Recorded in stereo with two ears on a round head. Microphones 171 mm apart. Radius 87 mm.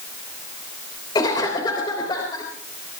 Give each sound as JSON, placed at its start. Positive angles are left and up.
{"t": 1.1, "sound": "a cough", "side_deg": 20, "distance_m": 3.5}